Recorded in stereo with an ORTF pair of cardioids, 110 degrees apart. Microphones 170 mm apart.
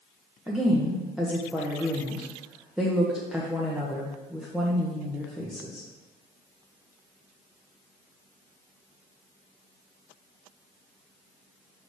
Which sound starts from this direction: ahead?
A woman speaking, at 0.5 s.